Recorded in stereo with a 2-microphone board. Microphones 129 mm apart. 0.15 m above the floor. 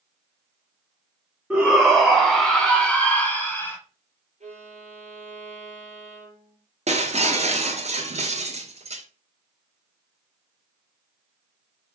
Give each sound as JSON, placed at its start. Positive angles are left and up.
{"t": 1.5, "sound": "a shout", "side_deg": -5, "distance_m": 1.3}
{"t": 4.4, "sound": "a violin", "side_deg": -65, "distance_m": 1.9}
{"t": 6.9, "sound": "breaking glass", "side_deg": -60, "distance_m": 0.9}